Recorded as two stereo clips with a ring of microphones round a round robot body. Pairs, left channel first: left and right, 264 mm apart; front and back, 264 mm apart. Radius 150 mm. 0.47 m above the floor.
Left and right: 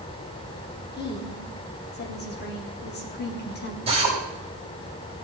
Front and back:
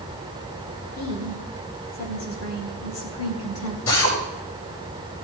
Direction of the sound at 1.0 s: 40° left.